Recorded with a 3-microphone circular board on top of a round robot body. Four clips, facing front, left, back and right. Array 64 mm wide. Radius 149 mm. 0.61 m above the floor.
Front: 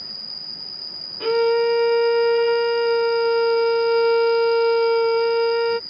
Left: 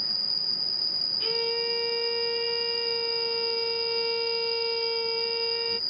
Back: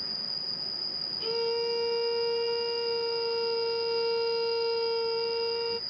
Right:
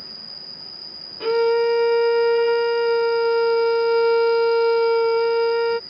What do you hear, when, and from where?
0.0 s an insect: 105° right
1.2 s a violin: 45° right